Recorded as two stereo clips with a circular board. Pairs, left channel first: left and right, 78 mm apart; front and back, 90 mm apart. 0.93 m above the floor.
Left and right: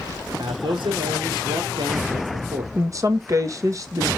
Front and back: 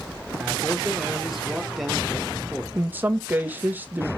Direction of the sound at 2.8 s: 115° right.